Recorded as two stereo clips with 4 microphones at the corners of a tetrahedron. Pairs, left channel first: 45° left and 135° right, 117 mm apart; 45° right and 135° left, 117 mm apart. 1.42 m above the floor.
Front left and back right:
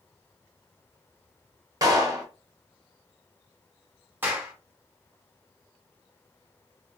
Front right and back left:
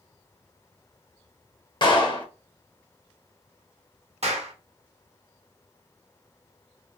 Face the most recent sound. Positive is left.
turn(degrees=155)